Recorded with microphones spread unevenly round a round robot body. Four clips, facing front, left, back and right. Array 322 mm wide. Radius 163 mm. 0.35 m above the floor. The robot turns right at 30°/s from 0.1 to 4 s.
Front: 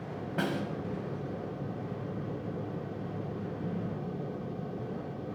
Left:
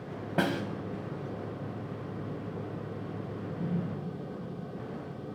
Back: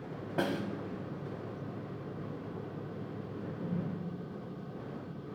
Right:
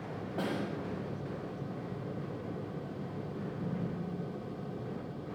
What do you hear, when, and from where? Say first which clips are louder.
0.4 s a snare drum: left 6 dB, even; 80° left, 1.0 m; by 0.7 s 90° left, 1.0 m
3.4 s a drawer: left 4 dB, back 2 dB; 85° left, 5 m; by 3.8 s 95° left, 5 m